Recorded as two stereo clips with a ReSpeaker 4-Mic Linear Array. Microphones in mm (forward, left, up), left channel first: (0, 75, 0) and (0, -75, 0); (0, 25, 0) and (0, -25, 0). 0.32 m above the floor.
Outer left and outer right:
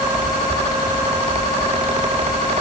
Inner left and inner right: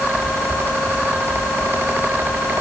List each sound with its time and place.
Only background noise.